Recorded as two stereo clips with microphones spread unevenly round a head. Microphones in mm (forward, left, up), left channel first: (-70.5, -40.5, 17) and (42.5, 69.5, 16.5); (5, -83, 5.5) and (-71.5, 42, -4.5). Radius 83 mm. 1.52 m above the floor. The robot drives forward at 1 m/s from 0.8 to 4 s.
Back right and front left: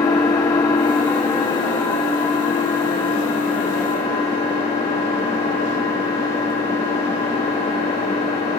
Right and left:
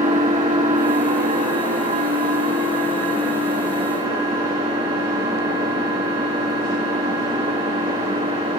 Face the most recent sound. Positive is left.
turn(degrees=175)